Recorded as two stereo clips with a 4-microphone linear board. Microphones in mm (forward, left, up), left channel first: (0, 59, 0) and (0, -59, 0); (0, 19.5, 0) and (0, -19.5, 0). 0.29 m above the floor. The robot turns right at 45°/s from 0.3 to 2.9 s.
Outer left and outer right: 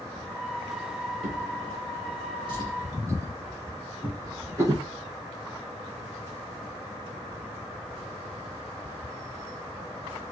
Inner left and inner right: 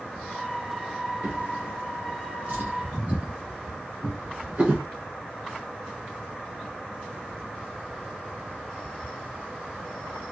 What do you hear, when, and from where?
1.2 s a drawer: 70° right (ahead or behind), 2.5 m; by 4.9 s 30° right (ahead or behind), 2.5 m